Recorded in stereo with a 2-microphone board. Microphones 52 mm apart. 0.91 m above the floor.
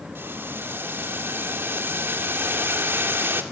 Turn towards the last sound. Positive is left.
turn(degrees=-45)  # may be behind; listen again after turning